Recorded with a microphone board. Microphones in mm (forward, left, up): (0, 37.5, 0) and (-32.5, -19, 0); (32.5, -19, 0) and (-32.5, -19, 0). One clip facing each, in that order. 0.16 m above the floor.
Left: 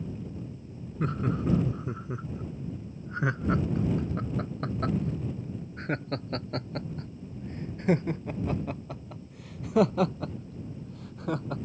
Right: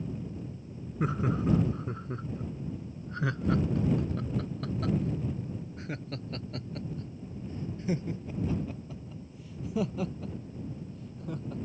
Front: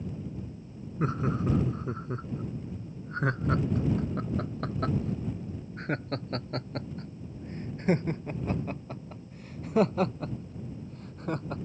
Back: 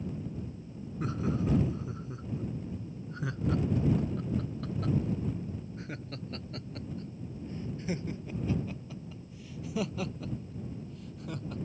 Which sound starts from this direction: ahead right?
Laughter, at 1.0 s.